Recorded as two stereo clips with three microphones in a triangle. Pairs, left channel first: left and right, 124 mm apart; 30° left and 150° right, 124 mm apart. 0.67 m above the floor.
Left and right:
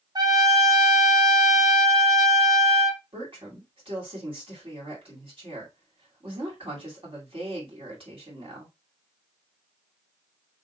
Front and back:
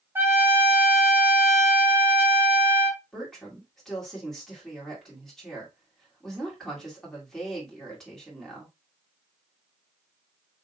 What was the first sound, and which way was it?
A trumpet, 90° right.